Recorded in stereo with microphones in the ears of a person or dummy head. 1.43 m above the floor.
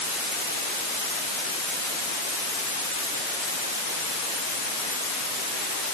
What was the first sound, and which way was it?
Only background noise.